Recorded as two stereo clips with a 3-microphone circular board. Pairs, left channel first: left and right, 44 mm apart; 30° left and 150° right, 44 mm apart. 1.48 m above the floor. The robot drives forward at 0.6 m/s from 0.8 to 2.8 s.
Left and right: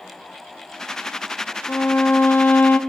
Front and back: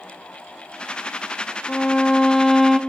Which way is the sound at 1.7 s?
85° left.